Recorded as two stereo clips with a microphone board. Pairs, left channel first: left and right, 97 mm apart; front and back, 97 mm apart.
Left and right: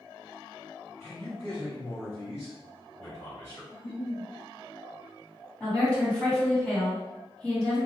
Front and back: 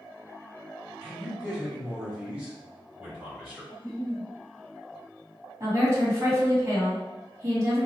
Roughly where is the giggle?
Left.